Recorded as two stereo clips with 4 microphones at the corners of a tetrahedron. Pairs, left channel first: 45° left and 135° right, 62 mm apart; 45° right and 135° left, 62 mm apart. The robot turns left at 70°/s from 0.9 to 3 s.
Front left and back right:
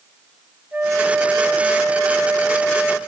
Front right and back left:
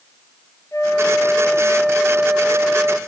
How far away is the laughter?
I don't hear laughter.